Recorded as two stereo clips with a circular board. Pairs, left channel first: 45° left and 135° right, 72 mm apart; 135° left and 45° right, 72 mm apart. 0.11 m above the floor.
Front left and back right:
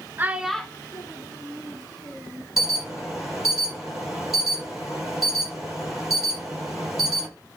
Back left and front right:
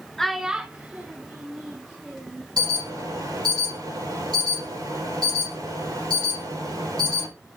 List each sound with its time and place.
0.2 s a child speaking: 145° right, 0.7 m; by 2.5 s 20° left, 2.5 m
2.6 s an alarm: 50° right, 5 m